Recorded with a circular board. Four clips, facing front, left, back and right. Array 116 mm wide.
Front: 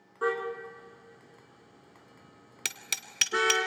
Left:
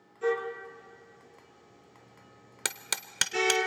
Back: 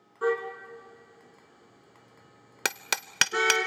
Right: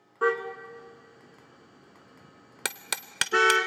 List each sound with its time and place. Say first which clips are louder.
0.2 s a car horn: right 3 dB, back 2 dB; 85° right, 2 m
2.6 s hammering: right 3 dB, back 10 dB; 165° right, 0.6 m